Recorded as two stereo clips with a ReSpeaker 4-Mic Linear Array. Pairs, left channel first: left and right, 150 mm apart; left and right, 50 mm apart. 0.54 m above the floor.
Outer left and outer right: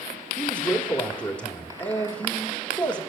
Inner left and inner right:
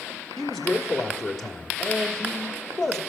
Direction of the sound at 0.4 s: 10° left (ahead or behind).